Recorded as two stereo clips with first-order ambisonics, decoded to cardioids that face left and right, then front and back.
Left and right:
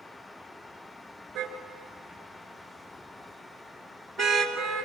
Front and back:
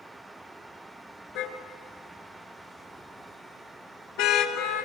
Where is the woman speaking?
I don't hear a woman speaking.